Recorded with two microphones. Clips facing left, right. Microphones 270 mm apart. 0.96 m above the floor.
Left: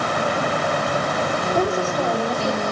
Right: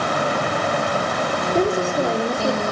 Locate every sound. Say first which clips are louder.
1.6 s a woman speaking: right 3 dB; 30° right (ahead or behind), 2.5 m